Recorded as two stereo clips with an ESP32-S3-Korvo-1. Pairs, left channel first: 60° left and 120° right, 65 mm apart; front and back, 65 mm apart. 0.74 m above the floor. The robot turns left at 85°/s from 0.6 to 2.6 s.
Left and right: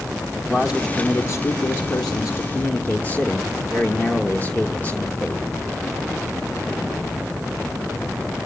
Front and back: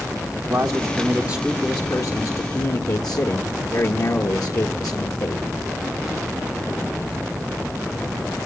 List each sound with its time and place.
0.5 s a man speaking: 170° left, 1.5 m; by 5.5 s straight ahead, 1.5 m